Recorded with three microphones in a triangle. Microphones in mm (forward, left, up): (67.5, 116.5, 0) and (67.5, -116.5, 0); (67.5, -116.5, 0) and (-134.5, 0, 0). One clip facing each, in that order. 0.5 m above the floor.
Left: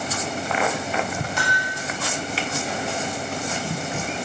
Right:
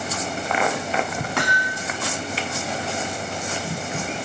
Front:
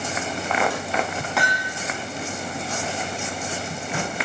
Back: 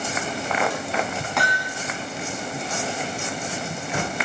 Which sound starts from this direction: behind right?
Hammering, at 1.4 s.